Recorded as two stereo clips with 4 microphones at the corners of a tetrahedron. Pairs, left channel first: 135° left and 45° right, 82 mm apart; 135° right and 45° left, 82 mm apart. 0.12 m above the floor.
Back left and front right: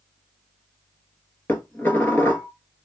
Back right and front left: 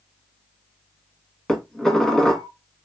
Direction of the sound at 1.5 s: 150° left.